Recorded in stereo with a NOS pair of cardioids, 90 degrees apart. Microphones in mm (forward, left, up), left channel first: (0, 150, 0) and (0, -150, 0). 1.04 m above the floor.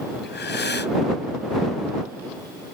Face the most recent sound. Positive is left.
turn(degrees=35)